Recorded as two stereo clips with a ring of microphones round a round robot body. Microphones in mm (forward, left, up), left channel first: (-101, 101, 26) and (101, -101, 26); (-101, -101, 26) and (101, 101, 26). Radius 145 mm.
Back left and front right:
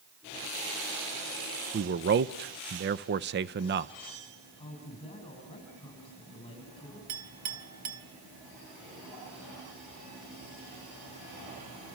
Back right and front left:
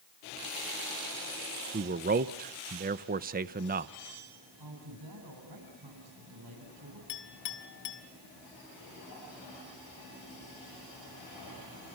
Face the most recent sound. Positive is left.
turn(degrees=-85)